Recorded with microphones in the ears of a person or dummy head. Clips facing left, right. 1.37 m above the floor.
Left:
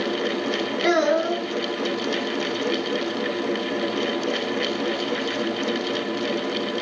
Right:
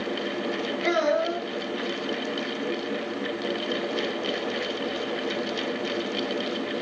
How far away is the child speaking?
About 0.9 m.